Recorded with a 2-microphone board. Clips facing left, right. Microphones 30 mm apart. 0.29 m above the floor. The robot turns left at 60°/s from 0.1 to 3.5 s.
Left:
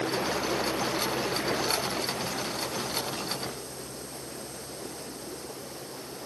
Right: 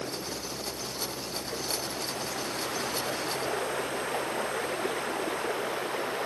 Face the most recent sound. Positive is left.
turn(degrees=-75)